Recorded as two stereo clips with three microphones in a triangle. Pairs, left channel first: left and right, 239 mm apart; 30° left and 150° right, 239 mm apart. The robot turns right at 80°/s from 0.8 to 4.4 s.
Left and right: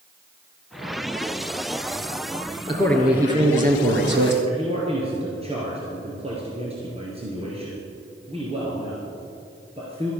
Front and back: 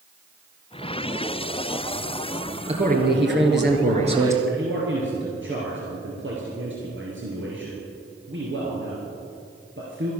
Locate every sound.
2.7 s a man speaking: 155° left, 2 m; by 4.3 s 75° right, 2 m
4.5 s a man speaking: 150° right, 2.5 m